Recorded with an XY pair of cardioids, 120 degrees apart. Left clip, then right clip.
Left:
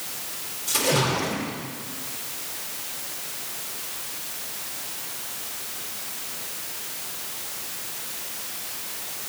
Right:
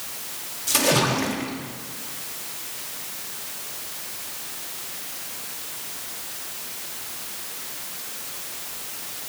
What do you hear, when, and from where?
0.7 s a splash: 35° right, 2.5 m